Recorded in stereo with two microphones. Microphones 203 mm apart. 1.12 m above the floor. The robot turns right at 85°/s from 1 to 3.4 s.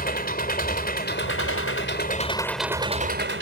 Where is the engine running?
45° left; by 3.4 s 110° right.